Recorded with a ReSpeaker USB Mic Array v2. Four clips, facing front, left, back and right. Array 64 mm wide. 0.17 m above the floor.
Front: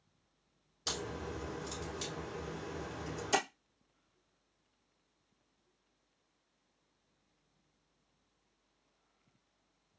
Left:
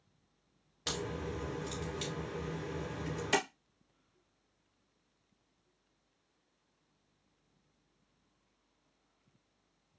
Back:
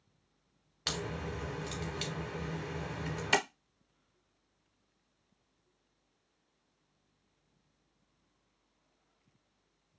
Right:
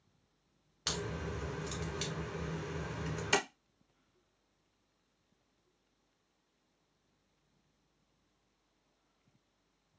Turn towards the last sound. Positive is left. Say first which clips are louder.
# left 1 dB, back 2 dB
turn(degrees=-165)